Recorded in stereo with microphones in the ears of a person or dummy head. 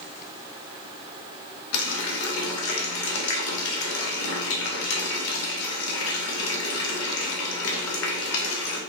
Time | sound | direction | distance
1.7 | a running tap | 75° left (ahead or behind) | 0.7 m